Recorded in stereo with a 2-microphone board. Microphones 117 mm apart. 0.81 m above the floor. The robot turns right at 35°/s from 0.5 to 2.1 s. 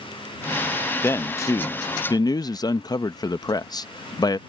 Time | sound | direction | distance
1.0 | a man speaking | 35° left | ?